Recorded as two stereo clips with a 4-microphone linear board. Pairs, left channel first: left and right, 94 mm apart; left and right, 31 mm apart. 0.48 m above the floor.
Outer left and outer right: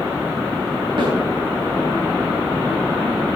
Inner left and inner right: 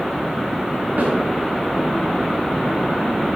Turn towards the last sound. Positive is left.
turn(degrees=-65)  # may be behind; listen again after turning